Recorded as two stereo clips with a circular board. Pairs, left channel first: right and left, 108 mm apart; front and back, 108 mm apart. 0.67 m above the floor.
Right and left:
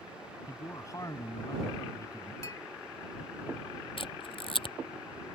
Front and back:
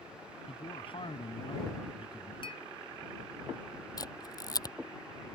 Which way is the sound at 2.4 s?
30° right.